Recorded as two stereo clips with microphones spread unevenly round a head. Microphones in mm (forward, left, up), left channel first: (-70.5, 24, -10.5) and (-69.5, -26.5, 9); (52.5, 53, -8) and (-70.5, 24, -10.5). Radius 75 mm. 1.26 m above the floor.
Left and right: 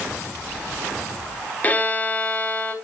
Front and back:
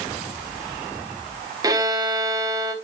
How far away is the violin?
About 1.2 m.